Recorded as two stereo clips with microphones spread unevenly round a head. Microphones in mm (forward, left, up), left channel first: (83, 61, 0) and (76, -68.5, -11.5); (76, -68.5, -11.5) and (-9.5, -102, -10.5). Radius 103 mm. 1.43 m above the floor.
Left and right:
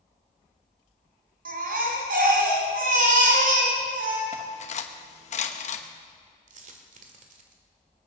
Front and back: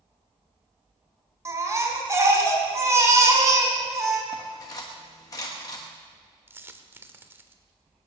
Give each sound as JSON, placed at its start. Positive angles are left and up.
{"t": 1.4, "sound": "a baby crying", "azimuth_deg": -100, "distance_m": 3.5}
{"t": 4.3, "sound": "cutlery clinking", "azimuth_deg": 85, "distance_m": 1.1}
{"t": 6.5, "sound": "a dropped coin", "azimuth_deg": -100, "distance_m": 1.7}